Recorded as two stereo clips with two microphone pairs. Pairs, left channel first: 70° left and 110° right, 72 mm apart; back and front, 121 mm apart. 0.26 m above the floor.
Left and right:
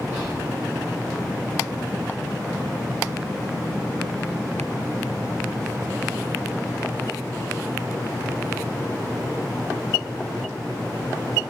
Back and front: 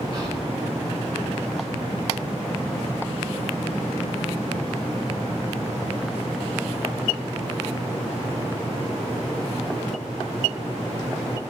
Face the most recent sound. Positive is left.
turn(degrees=-15)